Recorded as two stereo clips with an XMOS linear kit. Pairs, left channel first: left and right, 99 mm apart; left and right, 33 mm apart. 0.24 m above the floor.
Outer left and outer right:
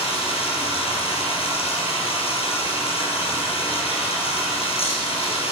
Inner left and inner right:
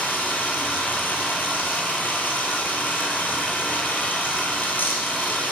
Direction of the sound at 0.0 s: 75° left (ahead or behind).